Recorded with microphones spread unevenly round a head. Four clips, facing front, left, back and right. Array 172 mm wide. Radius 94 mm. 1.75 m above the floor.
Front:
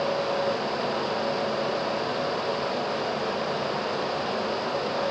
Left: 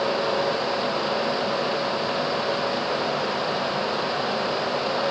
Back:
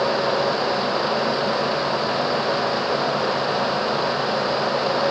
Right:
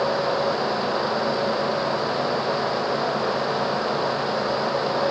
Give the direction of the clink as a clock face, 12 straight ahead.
No clink in this recording.